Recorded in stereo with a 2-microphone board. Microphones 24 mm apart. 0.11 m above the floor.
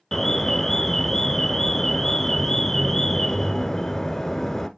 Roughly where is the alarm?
Left.